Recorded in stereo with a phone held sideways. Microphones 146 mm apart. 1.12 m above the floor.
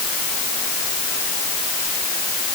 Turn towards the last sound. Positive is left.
No sound to turn to.